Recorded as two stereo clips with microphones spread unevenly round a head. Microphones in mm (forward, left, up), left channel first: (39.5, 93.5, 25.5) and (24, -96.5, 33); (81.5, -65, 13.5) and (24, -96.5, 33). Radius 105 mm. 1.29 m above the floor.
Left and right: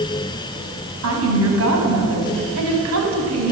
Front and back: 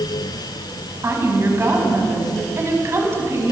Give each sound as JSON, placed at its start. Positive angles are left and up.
{"t": 1.0, "sound": "a woman speaking", "azimuth_deg": -100, "distance_m": 7.5}